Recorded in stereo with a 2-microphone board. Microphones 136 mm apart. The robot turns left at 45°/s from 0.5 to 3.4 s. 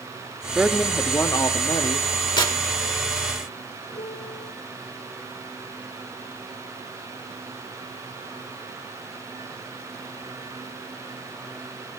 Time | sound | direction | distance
0.6 | a woman speaking | 175° right | 1.9 m
2.4 | tearing paper | 35° left (ahead or behind) | 2 m
3.9 | a piano | 55° left (ahead or behind) | 4.5 m